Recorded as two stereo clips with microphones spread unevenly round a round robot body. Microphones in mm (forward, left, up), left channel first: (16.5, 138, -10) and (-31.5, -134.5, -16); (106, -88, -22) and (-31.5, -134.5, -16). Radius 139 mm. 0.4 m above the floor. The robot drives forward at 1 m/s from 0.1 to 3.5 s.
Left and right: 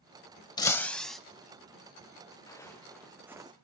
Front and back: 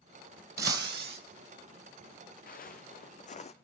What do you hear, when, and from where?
0.6 s breaking glass: 155° left, 0.5 m; by 1.2 s 170° left, 1.1 m
2.5 s footsteps: straight ahead, 2.5 m; by 3.5 s 25° right, 1.3 m